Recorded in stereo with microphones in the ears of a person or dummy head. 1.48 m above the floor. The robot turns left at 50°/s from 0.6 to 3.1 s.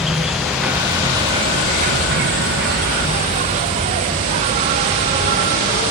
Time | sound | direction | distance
0.0 | an insect | 5° right | ?